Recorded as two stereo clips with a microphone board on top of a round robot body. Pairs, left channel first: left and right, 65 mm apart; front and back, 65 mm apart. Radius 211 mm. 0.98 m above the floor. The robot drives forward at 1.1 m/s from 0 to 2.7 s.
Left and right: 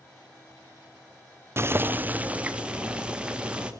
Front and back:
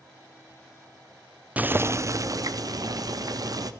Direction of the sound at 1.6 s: 120° right.